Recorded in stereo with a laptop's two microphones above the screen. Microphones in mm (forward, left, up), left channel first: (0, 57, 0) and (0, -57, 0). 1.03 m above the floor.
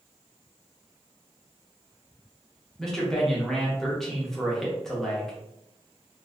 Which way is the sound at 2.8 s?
5° left (ahead or behind).